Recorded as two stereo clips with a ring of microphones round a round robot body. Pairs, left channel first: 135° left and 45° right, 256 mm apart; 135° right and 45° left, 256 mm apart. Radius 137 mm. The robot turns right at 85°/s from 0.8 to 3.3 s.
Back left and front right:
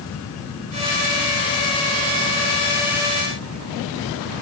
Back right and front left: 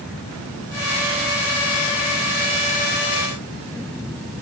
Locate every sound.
Only background noise.